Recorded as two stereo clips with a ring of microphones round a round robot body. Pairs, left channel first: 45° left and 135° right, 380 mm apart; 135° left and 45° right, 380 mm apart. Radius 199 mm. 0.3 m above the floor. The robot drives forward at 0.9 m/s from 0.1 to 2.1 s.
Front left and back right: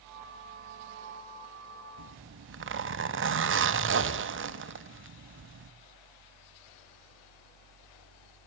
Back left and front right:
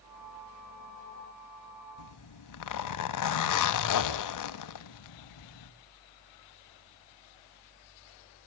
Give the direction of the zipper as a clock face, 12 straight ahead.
6 o'clock.